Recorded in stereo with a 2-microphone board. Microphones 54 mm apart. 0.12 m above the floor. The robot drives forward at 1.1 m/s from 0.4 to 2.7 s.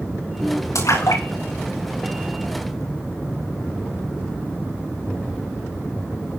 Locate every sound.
0.8 s a splash: 85° left, 9.5 m